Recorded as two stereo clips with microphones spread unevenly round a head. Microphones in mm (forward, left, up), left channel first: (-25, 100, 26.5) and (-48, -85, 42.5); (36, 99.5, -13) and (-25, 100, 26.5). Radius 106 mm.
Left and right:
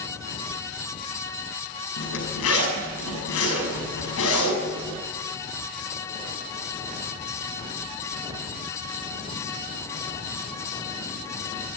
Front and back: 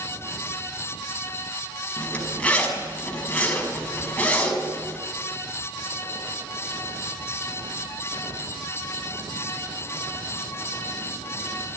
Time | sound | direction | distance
2.0 | a zipper | 70° left | 5.5 m